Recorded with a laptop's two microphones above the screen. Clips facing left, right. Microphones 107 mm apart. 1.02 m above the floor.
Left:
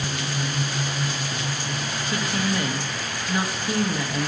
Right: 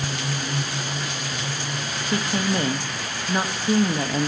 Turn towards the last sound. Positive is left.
turn(degrees=-30)  # may be behind; listen again after turning